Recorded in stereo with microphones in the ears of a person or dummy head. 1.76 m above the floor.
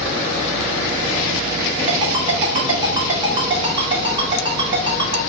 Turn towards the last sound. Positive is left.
turn(degrees=-25)  # may be behind; listen again after turning